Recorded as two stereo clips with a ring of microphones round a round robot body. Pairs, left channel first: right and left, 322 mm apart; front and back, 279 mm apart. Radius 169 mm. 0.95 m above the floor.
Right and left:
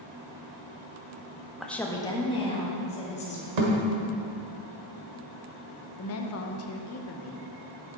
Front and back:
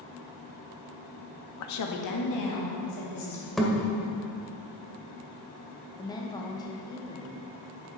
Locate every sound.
1.6 s a woman speaking: straight ahead, 0.9 m; by 3.5 s 20° right, 3.5 m
3.6 s a thud: 90° left, 1.7 m
6.0 s a woman speaking: 70° right, 0.9 m